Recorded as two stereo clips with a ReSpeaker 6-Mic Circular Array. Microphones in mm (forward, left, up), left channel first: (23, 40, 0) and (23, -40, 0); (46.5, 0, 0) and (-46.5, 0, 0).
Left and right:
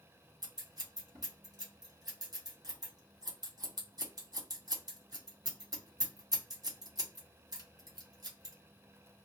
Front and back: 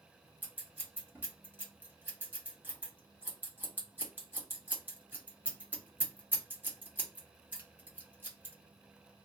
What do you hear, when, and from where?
0.4 s scissors: 110° right, 1.1 m